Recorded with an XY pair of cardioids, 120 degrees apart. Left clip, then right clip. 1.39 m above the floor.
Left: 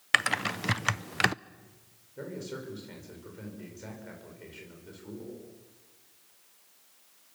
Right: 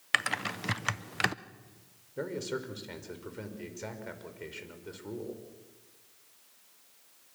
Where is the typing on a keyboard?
20° left, 0.5 m.